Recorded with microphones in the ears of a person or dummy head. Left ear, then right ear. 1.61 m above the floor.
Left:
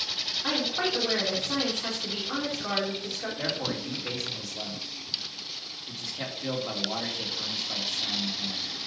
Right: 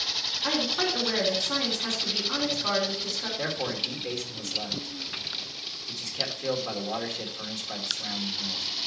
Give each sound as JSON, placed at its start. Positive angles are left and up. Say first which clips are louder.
{"t": 0.4, "sound": "a woman speaking", "louder": "right 2 dB", "side_deg": 15, "distance_m": 4.5}
{"t": 3.4, "sound": "a man speaking", "louder": "right 1 dB", "side_deg": -5, "distance_m": 2.5}